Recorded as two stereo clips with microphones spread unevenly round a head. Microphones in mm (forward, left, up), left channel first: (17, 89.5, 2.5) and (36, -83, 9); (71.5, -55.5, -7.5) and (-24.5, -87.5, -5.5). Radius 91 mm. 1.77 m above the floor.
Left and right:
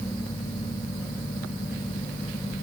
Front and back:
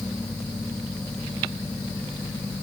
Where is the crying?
I don't hear crying.